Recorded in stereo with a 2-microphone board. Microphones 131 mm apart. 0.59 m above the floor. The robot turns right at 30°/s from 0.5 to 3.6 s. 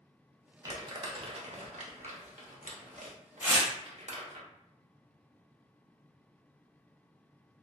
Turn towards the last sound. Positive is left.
turn(degrees=-25)  # may be behind; listen again after turning